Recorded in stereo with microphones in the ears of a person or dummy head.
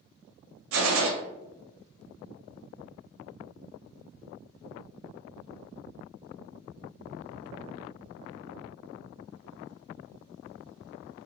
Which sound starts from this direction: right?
A gunshot, at 0.7 s.